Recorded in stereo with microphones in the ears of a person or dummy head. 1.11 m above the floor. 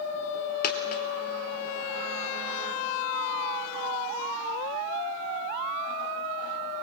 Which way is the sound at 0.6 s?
45° left (ahead or behind).